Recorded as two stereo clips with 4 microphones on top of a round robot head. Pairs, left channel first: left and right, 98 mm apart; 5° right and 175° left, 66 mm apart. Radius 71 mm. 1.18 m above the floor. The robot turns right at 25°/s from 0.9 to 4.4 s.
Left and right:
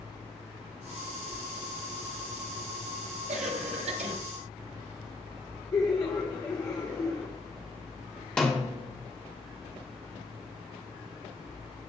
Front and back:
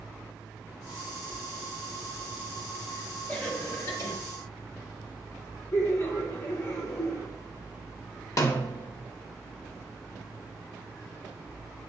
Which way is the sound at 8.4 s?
10° left.